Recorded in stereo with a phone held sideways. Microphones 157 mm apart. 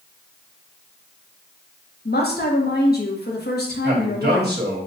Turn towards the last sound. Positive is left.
turn(degrees=-75)  # may be behind; listen again after turning